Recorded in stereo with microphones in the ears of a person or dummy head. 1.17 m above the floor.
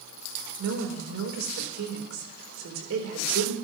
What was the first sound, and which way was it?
A woman speaking, 85° right.